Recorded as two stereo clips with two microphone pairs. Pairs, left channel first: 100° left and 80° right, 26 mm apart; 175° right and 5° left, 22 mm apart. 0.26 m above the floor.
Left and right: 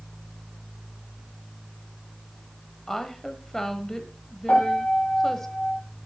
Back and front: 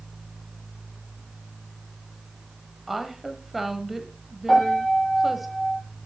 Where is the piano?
110° left, 7 m.